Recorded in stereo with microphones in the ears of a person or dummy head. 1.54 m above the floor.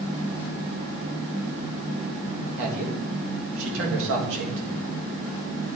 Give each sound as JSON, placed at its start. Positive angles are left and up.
{"t": 2.6, "sound": "a man speaking", "side_deg": -75, "distance_m": 2.0}